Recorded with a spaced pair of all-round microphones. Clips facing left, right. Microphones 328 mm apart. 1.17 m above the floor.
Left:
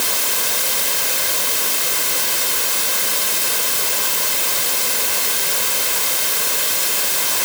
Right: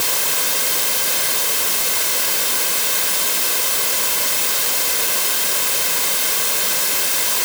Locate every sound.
Only background noise.